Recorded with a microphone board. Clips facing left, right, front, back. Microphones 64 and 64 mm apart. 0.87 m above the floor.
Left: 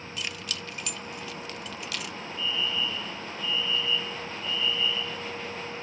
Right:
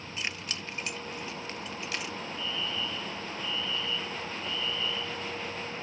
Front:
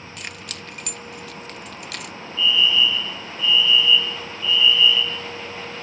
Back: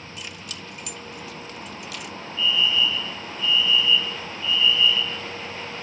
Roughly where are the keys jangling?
Ahead right.